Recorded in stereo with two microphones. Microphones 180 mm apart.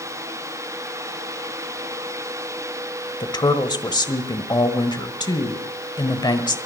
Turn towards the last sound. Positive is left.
turn(degrees=25)  # may be behind; listen again after turning